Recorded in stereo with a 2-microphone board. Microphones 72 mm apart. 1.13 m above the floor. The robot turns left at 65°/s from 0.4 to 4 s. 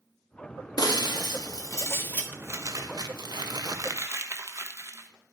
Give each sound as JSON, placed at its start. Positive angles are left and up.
{"t": 0.8, "sound": "breaking glass", "azimuth_deg": 115, "distance_m": 1.2}
{"t": 2.3, "sound": "crumpling", "azimuth_deg": -30, "distance_m": 1.1}